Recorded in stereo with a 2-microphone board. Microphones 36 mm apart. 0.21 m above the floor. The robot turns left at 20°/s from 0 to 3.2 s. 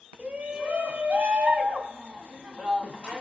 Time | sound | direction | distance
0.2 | a shout | 75° right | 1.2 m